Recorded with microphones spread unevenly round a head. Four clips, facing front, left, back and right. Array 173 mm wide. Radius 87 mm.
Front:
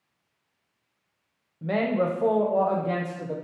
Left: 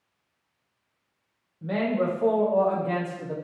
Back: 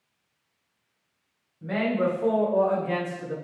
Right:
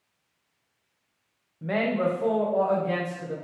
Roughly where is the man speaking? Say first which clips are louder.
Even, front 1 dB; ahead right.